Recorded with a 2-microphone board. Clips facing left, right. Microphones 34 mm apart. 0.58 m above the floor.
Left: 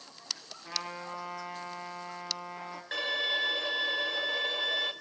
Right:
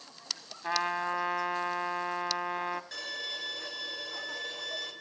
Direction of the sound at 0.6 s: 50° right (ahead or behind).